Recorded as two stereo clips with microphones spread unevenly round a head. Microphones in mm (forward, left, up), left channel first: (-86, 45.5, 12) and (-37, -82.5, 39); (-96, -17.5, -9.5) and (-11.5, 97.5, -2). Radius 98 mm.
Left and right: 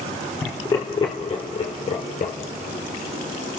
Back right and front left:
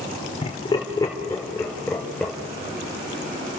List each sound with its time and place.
0.4 s laughter: straight behind, 3.5 m; by 2.3 s 145° left, 4 m